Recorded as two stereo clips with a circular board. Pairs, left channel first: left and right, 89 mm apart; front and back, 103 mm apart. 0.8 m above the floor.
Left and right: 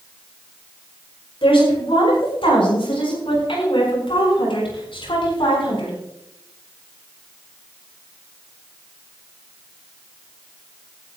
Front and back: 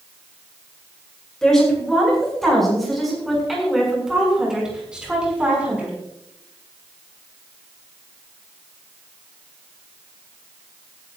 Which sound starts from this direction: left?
A woman speaking, at 1.4 s.